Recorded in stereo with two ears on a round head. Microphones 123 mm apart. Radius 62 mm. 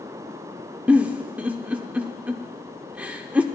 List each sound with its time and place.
0.9 s a giggle: 10° right (ahead or behind), 0.6 m